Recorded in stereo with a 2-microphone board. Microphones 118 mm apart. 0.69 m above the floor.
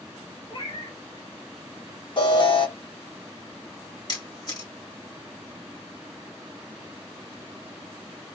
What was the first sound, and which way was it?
A cat meowing, 50° left (ahead or behind).